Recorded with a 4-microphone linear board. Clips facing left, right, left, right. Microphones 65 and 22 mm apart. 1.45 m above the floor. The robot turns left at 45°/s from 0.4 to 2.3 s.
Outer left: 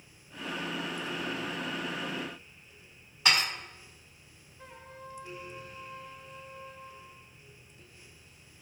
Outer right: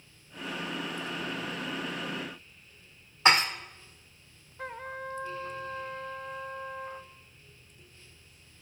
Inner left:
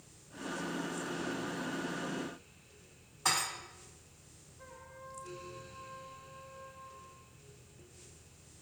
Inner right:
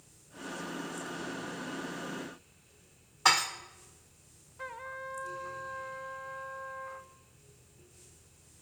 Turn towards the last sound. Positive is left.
turn(degrees=-60)  # may be behind; listen again after turning